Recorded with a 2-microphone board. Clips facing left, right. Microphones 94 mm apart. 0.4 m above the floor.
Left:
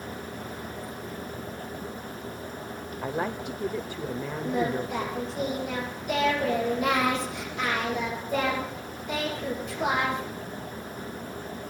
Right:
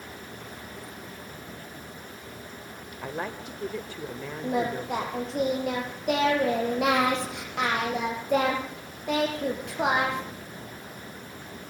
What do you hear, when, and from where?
3.0 s a woman speaking: 15° left (ahead or behind), 1.1 m
4.4 s singing: 75° right (ahead or behind), 8.5 m